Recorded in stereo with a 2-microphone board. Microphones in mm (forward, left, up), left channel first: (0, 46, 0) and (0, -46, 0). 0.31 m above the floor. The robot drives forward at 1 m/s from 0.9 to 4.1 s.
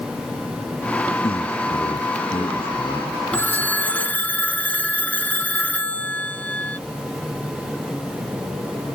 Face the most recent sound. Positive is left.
turn(degrees=15)  # may be behind; listen again after turning